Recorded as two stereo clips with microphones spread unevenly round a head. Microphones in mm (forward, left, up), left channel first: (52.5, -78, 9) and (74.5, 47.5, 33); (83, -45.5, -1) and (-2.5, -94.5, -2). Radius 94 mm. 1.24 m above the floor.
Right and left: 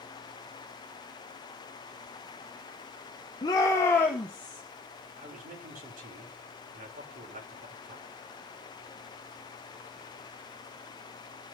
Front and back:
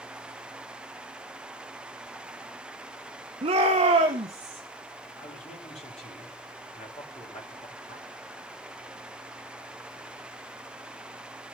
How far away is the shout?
About 1.1 m.